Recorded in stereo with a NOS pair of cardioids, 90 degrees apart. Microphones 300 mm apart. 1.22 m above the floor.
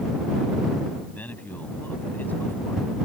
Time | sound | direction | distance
1.1 | a man speaking | 5° left | ?